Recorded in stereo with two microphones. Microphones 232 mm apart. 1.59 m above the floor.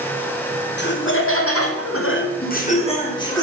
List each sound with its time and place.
0.8 s laughter: 50° left (ahead or behind), 1.4 m; by 3.4 s 15° left (ahead or behind), 1.8 m